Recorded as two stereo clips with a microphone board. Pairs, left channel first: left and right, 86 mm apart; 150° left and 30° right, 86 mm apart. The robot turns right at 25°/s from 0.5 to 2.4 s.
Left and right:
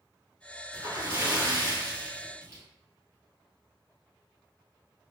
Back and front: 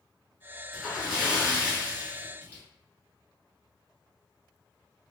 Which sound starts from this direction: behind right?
A splash, at 0.7 s.